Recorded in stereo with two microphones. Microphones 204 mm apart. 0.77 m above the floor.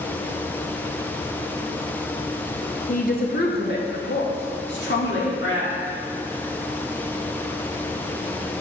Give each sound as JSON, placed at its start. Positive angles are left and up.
{"t": 2.9, "sound": "a woman speaking", "side_deg": 40, "distance_m": 1.0}